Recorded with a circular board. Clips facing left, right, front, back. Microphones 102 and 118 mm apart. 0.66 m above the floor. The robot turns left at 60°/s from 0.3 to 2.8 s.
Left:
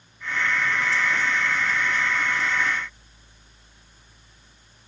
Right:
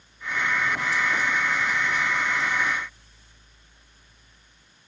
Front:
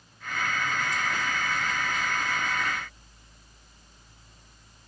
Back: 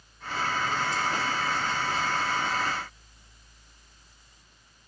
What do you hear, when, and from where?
Only background noise.